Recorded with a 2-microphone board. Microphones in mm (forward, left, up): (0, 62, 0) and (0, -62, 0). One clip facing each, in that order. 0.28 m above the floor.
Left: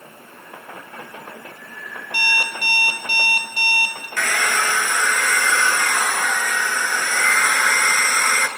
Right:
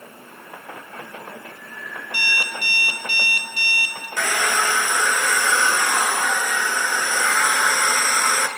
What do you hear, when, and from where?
2.1 s an alarm clock: 40° left (ahead or behind), 3 m
4.2 s a hair dryer: 15° right (ahead or behind), 2 m